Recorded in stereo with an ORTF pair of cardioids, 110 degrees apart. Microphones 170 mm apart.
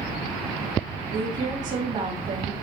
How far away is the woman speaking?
About 2.5 m.